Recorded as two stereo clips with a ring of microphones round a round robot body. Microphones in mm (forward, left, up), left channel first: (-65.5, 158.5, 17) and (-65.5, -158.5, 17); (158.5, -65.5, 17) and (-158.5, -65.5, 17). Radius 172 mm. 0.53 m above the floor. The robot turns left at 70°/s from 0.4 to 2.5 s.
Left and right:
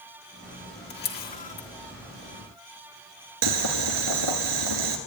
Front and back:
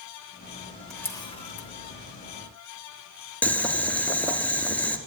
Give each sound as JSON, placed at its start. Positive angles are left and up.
{"t": 0.9, "sound": "a camera shutter", "azimuth_deg": 85, "distance_m": 1.1}
{"t": 3.4, "sound": "boiling", "azimuth_deg": -85, "distance_m": 1.4}